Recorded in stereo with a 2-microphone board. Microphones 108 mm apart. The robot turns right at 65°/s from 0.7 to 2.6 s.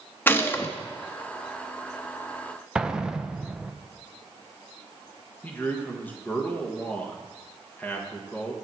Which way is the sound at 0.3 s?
20° left (ahead or behind).